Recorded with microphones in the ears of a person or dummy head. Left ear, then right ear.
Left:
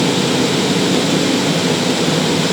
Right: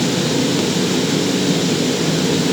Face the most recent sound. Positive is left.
No sound to turn to.